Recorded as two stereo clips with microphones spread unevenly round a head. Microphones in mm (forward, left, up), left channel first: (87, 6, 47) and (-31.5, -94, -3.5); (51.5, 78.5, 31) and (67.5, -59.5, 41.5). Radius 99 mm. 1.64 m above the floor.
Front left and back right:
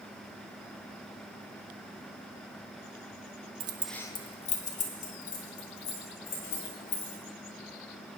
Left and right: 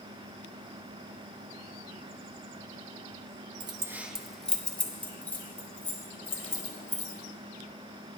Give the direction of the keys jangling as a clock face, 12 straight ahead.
3 o'clock.